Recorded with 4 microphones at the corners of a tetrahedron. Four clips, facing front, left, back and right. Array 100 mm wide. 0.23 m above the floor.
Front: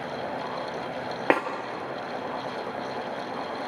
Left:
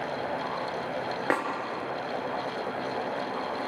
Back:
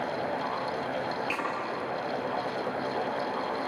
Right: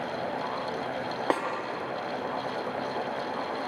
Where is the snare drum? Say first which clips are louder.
Even, front 9 dB; straight ahead, 3 m.